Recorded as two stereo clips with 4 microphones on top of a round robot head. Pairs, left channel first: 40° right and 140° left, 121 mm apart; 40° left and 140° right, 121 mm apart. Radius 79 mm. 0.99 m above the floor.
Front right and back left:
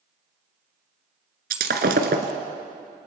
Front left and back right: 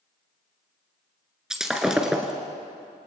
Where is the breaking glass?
140° left, 1.5 m.